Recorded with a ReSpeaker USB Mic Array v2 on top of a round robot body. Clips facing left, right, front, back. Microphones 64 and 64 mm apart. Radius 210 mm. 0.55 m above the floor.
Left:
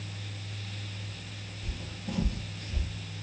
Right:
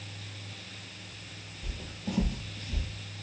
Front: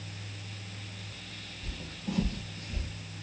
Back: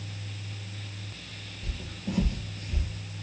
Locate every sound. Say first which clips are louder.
1.6 s footsteps: right 2 dB, back 2 dB; 105° right, 0.5 m; by 2.9 s 135° right, 1.1 m